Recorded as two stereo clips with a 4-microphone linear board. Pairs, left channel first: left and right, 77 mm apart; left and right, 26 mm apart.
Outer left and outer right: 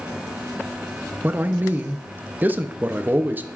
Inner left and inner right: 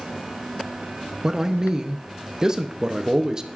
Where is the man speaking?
25° right (ahead or behind), 0.7 m.